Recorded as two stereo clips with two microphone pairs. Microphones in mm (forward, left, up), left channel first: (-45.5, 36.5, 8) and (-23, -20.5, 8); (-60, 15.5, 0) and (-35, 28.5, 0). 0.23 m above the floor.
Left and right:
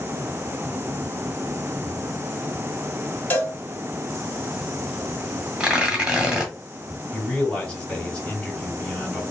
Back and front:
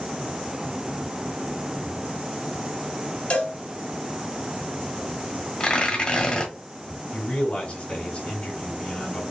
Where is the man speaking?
175° right, 2.5 m.